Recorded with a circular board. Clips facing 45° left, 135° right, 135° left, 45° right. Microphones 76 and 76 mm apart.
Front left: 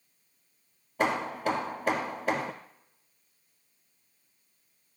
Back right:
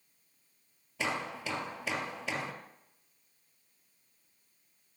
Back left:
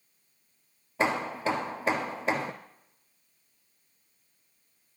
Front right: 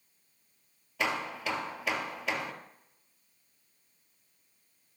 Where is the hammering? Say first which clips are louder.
Front left 7 dB, back left 5 dB; 80° left, 2 m.